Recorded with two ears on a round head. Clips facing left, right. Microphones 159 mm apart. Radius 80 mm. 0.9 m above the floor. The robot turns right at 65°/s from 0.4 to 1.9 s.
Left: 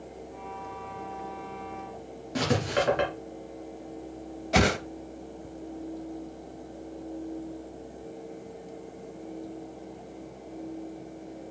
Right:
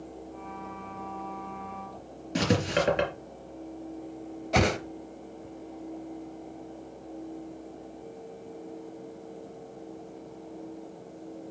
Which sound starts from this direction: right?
Writing, at 2.4 s.